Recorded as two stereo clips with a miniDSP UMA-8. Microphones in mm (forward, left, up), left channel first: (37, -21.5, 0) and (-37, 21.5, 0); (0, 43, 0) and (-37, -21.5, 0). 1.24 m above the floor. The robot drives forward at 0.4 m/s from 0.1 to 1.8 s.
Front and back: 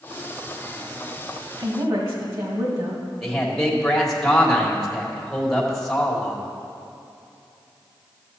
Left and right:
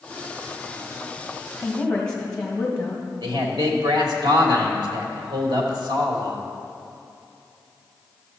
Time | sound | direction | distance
1.6 | a woman speaking | 135° left | 1.8 m
3.2 | a man speaking | 115° right | 1.7 m